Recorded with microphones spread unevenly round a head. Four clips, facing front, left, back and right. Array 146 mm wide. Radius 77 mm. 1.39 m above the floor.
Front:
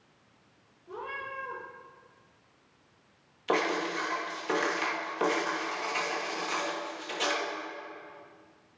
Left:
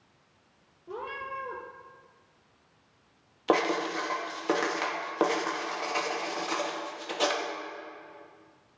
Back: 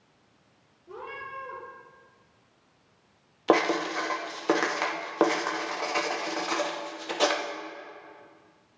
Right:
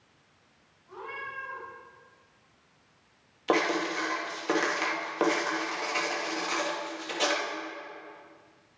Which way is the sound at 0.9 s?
110° left.